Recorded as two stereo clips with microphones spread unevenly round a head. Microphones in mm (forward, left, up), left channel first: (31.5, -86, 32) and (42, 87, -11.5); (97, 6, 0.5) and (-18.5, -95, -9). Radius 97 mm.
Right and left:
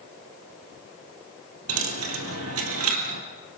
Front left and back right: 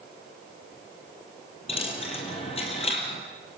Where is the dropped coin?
100° left, 3 m.